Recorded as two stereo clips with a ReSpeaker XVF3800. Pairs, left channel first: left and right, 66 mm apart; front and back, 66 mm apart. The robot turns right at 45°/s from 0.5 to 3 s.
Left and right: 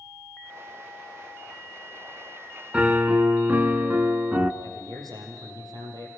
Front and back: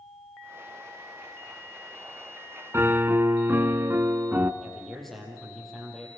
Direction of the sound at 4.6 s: 85° right.